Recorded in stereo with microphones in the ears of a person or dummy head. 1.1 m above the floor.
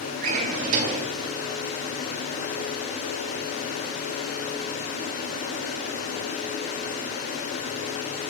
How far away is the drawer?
About 1.3 m.